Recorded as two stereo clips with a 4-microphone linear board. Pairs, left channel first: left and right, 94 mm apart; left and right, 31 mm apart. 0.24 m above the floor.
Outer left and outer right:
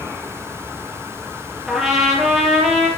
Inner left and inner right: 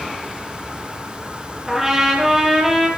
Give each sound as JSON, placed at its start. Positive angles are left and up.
{"t": 1.7, "sound": "a trumpet", "side_deg": -5, "distance_m": 5.0}